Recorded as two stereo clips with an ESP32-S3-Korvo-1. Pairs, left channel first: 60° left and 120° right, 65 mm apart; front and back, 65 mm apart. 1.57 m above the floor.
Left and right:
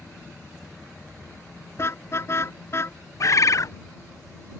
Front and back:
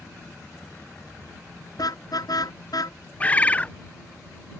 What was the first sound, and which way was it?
A car horn, 15° left.